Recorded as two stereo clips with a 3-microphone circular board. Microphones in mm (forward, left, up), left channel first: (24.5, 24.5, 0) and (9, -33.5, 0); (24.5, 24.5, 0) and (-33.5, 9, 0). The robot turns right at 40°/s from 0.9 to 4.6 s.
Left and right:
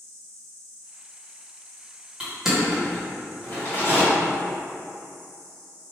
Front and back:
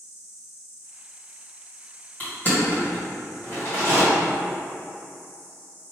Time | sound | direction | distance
0.0 | an insect | straight ahead | 1.9 m
2.2 | crushing | 35° right | 1.5 m